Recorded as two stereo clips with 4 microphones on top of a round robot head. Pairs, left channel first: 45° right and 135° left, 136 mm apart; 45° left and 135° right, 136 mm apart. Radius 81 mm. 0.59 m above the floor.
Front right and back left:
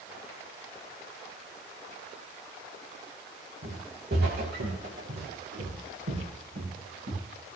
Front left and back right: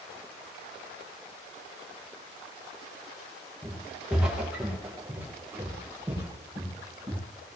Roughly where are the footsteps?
Behind left.